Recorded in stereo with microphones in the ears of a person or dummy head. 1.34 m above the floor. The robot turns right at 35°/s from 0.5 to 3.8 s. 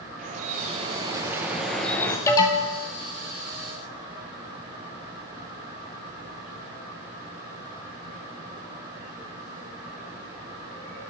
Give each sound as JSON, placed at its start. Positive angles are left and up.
{"t": 0.2, "sound": "dripping", "azimuth_deg": -40, "distance_m": 0.9}
{"t": 2.3, "sound": "an alarm", "side_deg": 20, "distance_m": 0.9}